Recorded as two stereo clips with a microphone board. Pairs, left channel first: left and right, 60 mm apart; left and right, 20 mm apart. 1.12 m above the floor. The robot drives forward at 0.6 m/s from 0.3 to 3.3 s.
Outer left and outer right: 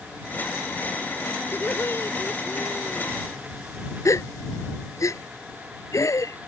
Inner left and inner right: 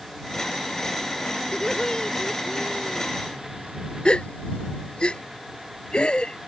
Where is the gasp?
60° left (ahead or behind).